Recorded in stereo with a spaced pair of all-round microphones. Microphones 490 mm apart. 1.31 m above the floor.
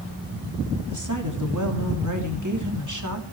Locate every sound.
0.9 s a woman speaking: 40° right (ahead or behind), 3 m